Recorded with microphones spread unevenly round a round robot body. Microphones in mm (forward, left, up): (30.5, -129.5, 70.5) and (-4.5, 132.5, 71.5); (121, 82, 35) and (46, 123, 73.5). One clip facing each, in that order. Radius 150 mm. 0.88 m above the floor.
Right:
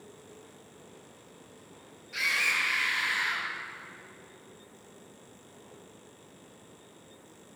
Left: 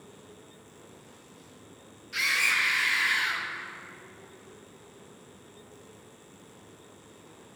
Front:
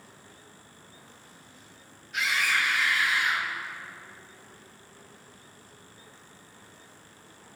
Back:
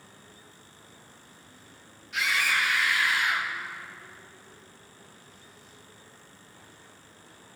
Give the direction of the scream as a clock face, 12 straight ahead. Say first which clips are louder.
Left 1 dB, even; 6 o'clock.